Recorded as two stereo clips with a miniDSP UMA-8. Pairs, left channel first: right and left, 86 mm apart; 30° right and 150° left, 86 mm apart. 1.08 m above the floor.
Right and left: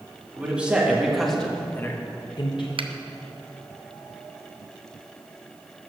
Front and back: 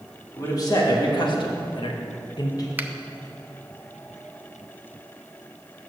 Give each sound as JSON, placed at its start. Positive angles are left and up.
{"t": 0.4, "sound": "a man speaking", "azimuth_deg": 15, "distance_m": 2.0}
{"t": 2.8, "sound": "a finger snap", "azimuth_deg": 80, "distance_m": 0.5}